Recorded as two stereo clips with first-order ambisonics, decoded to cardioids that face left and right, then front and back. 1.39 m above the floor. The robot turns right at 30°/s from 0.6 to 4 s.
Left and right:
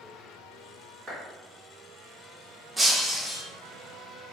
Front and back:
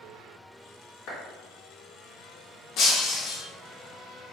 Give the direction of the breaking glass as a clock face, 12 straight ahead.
12 o'clock.